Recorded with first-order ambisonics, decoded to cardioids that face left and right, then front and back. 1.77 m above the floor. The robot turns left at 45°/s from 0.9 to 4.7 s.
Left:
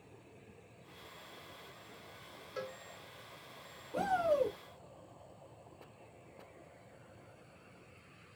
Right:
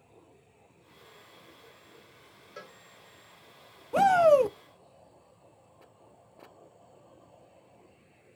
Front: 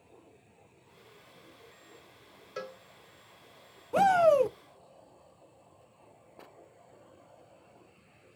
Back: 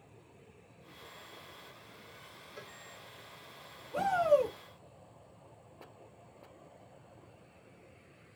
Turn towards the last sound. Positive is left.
turn(degrees=-85)